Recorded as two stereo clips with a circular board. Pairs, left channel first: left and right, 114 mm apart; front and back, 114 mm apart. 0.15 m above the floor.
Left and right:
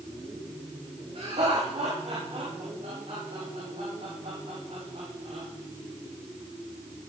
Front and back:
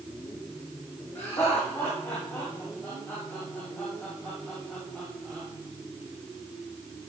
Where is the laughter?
65° right, 8 m; by 5.5 s 80° right, 7 m.